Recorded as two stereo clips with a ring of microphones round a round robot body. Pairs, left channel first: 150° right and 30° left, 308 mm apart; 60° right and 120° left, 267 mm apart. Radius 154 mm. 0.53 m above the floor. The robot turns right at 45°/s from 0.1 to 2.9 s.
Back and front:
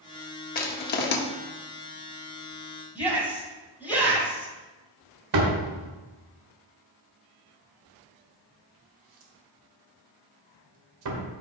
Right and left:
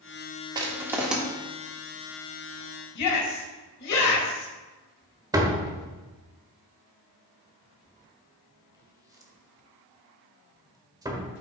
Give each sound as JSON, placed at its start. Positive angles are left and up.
{"t": 0.6, "sound": "crushing", "azimuth_deg": 180, "distance_m": 1.2}
{"t": 3.0, "sound": "a shout", "azimuth_deg": -55, "distance_m": 4.0}
{"t": 5.3, "sound": "a door slam", "azimuth_deg": 45, "distance_m": 1.7}